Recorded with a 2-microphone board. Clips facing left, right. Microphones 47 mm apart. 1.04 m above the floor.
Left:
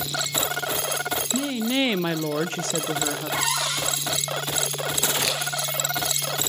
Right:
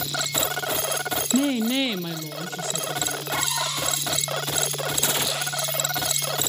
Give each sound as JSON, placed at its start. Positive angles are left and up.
{"t": 1.3, "sound": "a woman speaking", "side_deg": -25, "distance_m": 0.9}
{"t": 3.4, "sound": "a cupboard door", "side_deg": 85, "distance_m": 9.0}
{"t": 5.2, "sound": "a camera shutter", "side_deg": 70, "distance_m": 9.5}